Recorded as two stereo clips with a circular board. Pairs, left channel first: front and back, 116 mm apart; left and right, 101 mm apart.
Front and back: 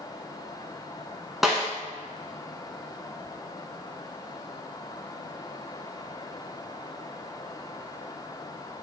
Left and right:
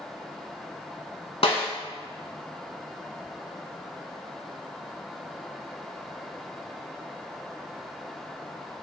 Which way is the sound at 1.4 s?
95° left.